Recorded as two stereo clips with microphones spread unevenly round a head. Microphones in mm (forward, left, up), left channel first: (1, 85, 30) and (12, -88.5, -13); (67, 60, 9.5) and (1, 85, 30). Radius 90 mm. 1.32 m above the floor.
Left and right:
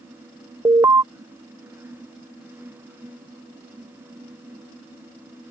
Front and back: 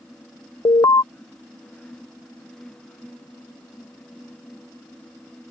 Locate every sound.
0.7 s an alarm: 20° right